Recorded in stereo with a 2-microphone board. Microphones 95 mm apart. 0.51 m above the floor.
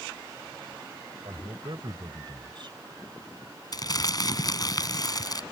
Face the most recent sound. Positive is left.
turn(degrees=45)  # may be behind; listen again after turning